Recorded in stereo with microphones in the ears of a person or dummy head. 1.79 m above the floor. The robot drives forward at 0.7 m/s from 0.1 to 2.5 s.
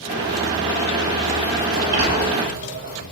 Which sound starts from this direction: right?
A sliding door, at 1.7 s.